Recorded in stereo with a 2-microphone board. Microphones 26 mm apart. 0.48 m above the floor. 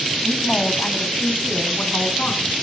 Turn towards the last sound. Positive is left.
turn(degrees=80)